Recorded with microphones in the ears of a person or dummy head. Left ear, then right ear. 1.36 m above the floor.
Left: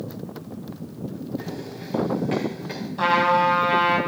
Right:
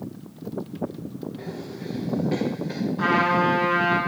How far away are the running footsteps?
About 4.5 m.